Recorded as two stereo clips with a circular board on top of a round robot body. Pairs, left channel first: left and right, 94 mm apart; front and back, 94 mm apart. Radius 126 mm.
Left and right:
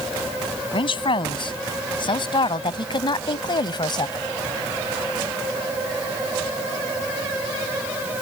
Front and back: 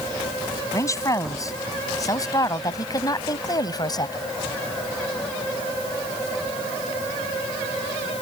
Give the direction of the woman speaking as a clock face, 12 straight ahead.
10 o'clock.